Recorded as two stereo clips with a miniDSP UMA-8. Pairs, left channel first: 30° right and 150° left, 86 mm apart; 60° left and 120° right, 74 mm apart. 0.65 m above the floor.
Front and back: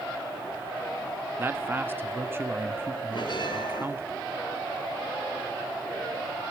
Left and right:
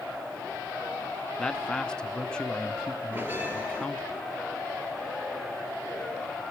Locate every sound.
1.4 s a man speaking: 130° left, 0.6 m
3.1 s a bell: 55° right, 2.5 m